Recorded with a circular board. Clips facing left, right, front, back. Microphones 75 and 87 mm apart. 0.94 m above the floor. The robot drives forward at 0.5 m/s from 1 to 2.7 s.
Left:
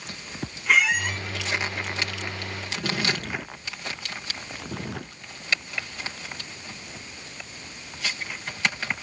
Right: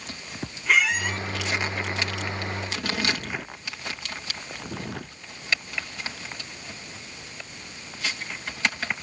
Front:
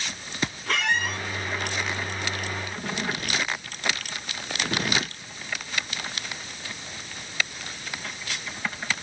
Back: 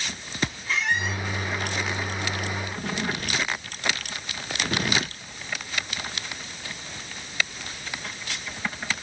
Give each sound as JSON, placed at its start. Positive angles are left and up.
{"t": 0.7, "sound": "a squeak", "azimuth_deg": 0, "distance_m": 1.0}